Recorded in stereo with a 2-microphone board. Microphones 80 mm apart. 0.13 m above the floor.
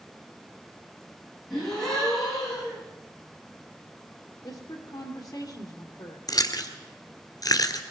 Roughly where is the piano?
No piano in this recording.